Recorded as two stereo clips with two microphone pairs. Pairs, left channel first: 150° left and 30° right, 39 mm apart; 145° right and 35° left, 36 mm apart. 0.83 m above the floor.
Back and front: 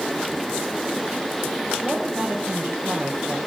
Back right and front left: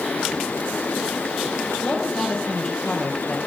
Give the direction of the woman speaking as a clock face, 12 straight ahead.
4 o'clock.